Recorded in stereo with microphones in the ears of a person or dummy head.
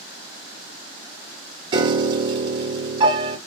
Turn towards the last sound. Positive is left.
turn(degrees=-30)  # may be behind; listen again after turning